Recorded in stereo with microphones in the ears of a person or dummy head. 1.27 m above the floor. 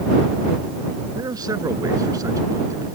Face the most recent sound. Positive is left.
turn(degrees=-15)  # may be behind; listen again after turning